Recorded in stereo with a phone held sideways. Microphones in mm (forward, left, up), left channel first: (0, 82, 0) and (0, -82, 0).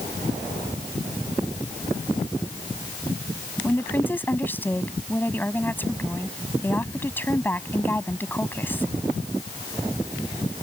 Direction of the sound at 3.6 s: 10° left (ahead or behind).